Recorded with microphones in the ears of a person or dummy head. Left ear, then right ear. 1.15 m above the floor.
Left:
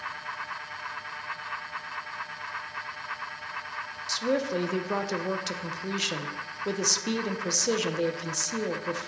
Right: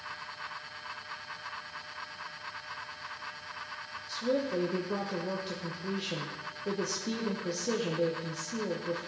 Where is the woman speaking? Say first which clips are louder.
Left 4 dB; 50° left (ahead or behind), 1.1 m.